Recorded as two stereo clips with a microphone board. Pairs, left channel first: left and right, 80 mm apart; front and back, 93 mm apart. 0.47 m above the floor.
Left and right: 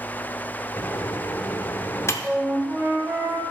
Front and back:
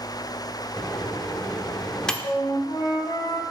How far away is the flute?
About 1.6 m.